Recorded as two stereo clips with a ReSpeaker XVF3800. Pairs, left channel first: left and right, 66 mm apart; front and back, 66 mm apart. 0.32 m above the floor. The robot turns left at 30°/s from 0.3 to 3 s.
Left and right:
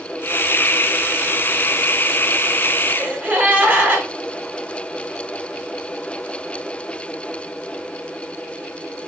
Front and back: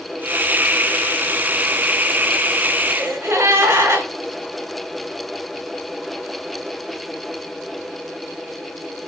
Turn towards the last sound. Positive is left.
turn(degrees=-140)